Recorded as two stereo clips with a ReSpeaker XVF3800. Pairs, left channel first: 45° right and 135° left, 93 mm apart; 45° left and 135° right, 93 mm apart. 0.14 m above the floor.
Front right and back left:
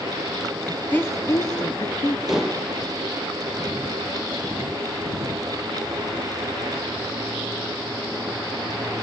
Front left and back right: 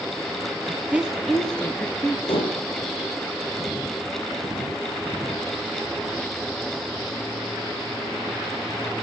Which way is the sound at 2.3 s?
50° left.